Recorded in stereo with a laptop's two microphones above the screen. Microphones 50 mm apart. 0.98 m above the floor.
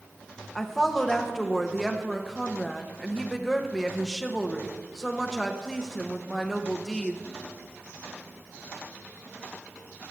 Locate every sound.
0.6 s a woman speaking: 5° left (ahead or behind), 1.1 m